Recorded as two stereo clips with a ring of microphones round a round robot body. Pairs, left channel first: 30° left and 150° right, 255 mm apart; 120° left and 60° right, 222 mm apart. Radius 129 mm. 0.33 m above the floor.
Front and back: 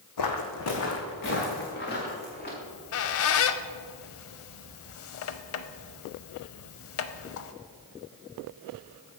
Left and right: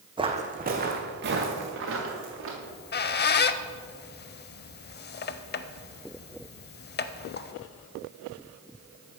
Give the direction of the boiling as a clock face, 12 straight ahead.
I don't hear boiling.